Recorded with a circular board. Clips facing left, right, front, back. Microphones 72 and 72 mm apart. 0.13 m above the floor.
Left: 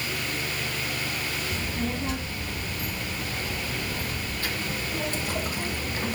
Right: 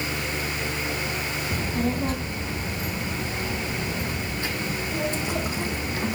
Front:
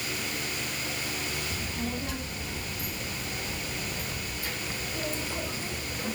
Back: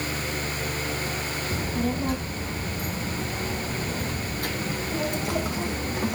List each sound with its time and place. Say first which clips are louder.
1.5 s a child speaking: right 7 dB, back 7 dB; 130° right, 3.5 m; by 6.2 s 170° right, 4.5 m